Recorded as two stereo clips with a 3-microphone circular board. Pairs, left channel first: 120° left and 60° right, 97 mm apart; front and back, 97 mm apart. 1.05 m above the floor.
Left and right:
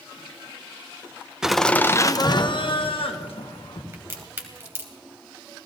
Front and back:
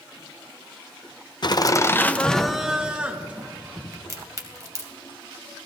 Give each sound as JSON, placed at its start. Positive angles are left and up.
{"t": 1.4, "sound": "laughter", "azimuth_deg": 20, "distance_m": 0.7}
{"t": 3.9, "sound": "a crack", "azimuth_deg": -125, "distance_m": 2.0}